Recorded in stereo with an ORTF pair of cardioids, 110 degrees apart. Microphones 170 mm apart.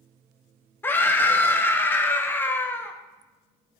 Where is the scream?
10° left, 1.1 m.